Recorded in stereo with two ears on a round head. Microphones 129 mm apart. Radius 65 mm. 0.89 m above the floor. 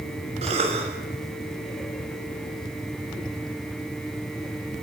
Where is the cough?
45° right (ahead or behind), 5.5 m.